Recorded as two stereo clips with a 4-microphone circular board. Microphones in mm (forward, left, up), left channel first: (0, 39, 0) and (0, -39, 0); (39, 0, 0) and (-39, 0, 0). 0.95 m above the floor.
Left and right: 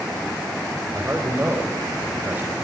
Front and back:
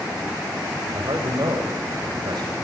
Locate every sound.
0.9 s a man speaking: 155° right, 5.5 m; by 2.5 s 160° right, 6 m